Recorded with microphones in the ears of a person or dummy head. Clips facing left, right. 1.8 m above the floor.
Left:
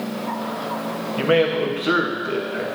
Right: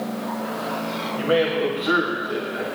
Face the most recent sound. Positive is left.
turn(degrees=45)  # may be behind; listen again after turning